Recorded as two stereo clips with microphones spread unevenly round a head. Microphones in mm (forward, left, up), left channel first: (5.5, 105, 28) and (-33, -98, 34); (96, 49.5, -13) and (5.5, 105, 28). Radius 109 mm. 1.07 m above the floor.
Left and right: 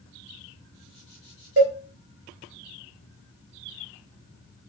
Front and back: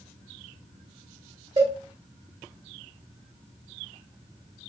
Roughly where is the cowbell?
Behind right.